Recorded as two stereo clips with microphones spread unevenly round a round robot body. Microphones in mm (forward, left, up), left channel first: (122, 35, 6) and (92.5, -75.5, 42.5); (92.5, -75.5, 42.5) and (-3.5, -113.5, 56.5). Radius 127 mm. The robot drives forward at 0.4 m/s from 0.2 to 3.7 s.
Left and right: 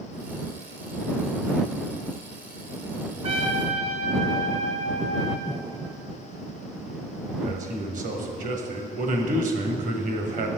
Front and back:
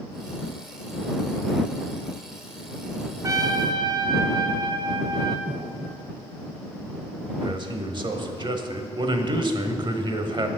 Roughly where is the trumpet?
Behind right.